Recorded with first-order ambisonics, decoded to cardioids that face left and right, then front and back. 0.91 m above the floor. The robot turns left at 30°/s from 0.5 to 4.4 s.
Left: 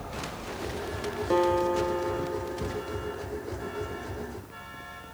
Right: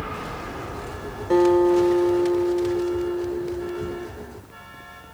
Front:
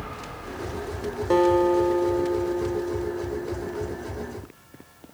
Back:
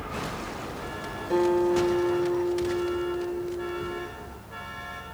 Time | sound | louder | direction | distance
1.3 | a guitar | right 7 dB, front 4 dB | 5° left | 0.8 m